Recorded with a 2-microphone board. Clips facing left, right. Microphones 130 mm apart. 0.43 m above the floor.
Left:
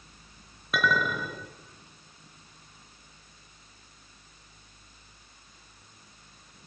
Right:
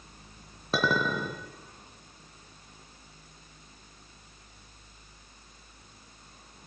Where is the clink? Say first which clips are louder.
Even; 30° right (ahead or behind), 3 m.